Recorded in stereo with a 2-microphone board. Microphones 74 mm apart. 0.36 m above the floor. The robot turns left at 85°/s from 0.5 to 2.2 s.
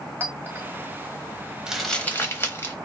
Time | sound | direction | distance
0.2 | a clink | 30° right (ahead or behind) | 1.4 m
1.7 | crumpling | 10° right (ahead or behind) | 1.1 m